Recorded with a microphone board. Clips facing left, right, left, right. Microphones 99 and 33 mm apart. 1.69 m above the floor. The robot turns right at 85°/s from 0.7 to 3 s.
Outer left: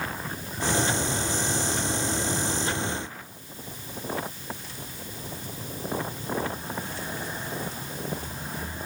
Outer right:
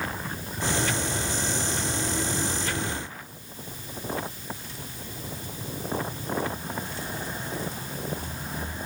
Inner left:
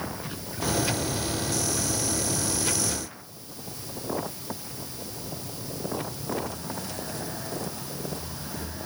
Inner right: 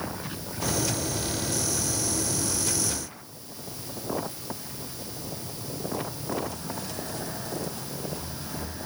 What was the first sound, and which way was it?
Only background noise.